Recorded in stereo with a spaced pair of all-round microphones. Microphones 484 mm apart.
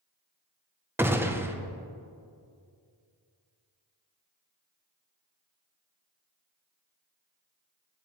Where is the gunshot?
5° right (ahead or behind), 0.5 m.